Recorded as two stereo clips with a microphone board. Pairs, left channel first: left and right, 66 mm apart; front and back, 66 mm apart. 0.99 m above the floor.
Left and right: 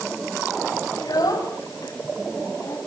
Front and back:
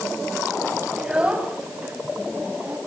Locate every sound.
1.0 s a child speaking: 105° left, 3 m; by 2.8 s 125° left, 4 m